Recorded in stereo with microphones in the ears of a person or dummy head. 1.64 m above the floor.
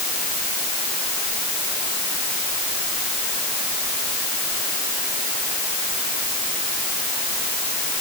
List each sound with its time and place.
Only background noise.